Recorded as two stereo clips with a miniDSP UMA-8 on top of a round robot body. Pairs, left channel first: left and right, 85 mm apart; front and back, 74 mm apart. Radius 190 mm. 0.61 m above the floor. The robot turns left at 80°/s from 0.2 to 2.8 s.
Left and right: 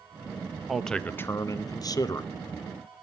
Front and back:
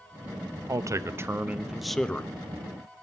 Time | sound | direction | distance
0.7 | a man speaking | 175° right | 0.7 m